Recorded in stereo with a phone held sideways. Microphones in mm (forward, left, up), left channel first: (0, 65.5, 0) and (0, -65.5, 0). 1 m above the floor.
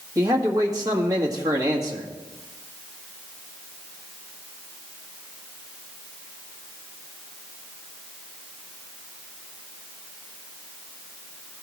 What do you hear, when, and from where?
0.1 s a man speaking: 30° right (ahead or behind), 1.6 m